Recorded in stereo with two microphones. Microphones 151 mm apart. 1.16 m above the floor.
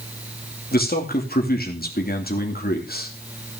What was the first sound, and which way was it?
A man speaking, 70° left (ahead or behind).